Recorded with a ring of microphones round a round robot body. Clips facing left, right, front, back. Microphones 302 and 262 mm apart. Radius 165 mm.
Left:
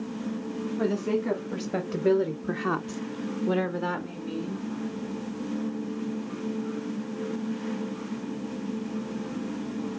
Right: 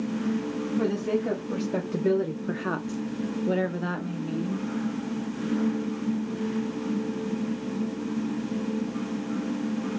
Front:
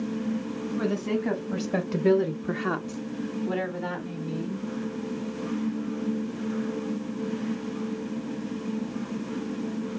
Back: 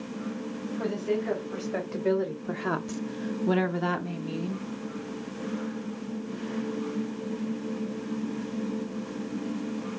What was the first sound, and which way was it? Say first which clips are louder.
A woman speaking: even, front 1 dB; 5° right.